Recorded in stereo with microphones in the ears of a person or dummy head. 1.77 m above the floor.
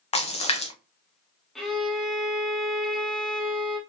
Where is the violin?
5° left (ahead or behind), 0.9 m.